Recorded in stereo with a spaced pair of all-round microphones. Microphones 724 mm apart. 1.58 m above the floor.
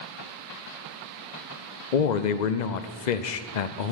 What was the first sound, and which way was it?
A man speaking, 75° left (ahead or behind).